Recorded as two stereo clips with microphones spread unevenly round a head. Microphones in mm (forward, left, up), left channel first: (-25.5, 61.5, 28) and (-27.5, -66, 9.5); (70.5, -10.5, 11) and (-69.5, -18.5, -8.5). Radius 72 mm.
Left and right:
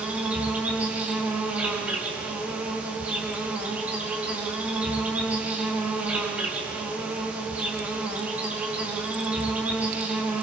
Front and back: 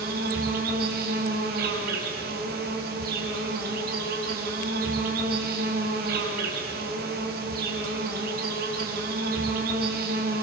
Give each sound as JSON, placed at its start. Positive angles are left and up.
{"t": 0.0, "sound": "an insect", "azimuth_deg": -170, "distance_m": 4.5}